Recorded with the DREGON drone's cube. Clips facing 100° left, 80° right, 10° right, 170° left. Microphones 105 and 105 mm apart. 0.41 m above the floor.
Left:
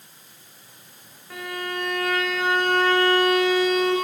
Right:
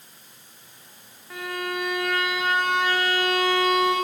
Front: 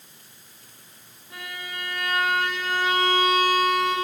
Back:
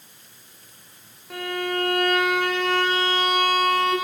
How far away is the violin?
About 9 m.